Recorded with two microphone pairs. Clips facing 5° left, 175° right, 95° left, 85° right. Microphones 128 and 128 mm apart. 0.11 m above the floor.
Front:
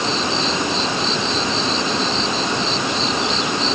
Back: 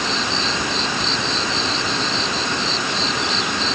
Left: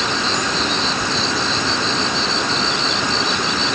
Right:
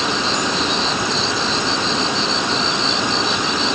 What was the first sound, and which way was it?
Only background noise.